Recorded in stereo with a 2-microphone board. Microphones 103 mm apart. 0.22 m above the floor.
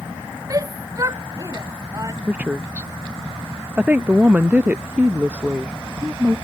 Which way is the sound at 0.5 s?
35° right (ahead or behind).